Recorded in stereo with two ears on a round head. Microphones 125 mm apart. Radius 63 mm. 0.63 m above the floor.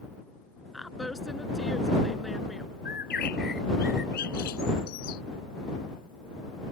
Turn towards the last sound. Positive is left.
turn(degrees=70)  # may be behind; listen again after turning